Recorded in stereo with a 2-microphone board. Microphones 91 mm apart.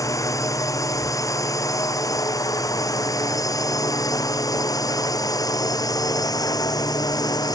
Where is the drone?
35° left (ahead or behind); by 7.5 s 45° left (ahead or behind).